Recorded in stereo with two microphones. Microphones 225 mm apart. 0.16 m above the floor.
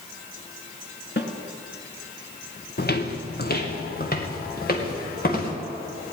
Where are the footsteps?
45° left (ahead or behind), 1.4 m; by 5.5 s 40° left (ahead or behind), 4 m.